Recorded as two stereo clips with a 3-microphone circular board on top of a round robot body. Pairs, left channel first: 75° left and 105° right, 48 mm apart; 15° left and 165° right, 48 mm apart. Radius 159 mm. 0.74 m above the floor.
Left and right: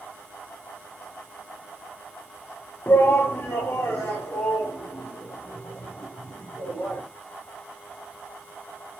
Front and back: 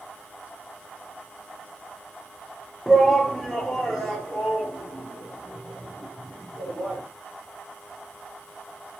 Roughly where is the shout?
Left.